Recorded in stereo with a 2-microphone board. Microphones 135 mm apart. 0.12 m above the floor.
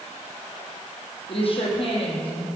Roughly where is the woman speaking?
Left.